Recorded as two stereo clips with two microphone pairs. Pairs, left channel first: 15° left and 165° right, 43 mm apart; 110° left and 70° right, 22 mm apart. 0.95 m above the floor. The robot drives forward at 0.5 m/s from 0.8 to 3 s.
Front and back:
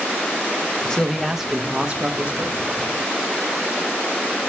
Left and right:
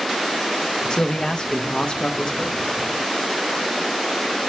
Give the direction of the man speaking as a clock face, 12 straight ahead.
9 o'clock.